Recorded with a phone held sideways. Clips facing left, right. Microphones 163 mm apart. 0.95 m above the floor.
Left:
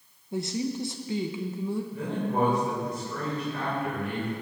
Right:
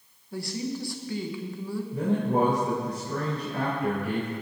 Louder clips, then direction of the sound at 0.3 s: Left 2 dB; 20° left (ahead or behind).